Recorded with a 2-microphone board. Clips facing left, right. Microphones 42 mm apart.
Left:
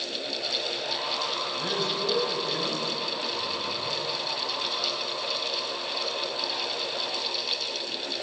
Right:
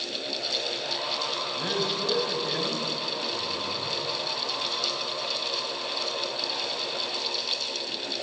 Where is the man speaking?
15° right (ahead or behind), 4 m; by 4.0 s 35° right (ahead or behind), 5 m.